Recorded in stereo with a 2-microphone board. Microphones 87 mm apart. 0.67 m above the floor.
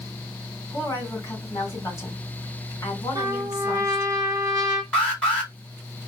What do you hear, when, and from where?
0.7 s a woman speaking: 30° left (ahead or behind), 2 m
3.1 s a trumpet: 40° right (ahead or behind), 1.3 m
4.9 s an alarm: 10° left (ahead or behind), 2 m